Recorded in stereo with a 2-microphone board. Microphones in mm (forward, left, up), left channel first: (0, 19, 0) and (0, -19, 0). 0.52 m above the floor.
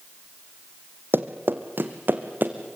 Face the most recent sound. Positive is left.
turn(degrees=-50)  # may be behind; listen again after turning